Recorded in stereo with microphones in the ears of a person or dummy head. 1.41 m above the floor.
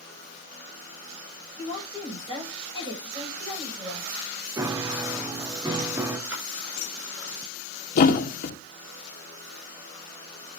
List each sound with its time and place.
1.6 s a woman speaking: 30° right (ahead or behind), 6.5 m
4.6 s a piano: 15° right (ahead or behind), 0.5 m
6.3 s a splash: 10° right (ahead or behind), 9 m
8.0 s a thud: 45° left (ahead or behind), 1.5 m